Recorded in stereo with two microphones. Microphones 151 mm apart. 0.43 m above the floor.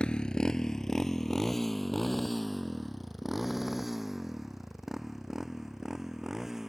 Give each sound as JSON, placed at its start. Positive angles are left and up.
{"t": 0.0, "sound": "a motorcycle", "side_deg": 5}